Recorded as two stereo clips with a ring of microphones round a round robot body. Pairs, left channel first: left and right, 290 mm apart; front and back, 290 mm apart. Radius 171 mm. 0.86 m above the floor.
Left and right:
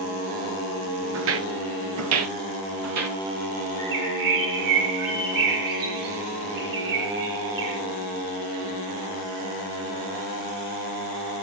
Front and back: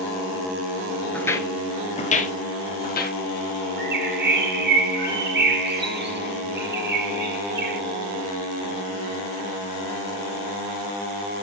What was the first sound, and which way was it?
Footsteps, 85° right.